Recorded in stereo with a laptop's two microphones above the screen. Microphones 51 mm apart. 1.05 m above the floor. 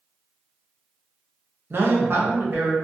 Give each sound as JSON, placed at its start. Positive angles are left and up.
{"t": 1.7, "sound": "a man speaking", "side_deg": -45, "distance_m": 0.7}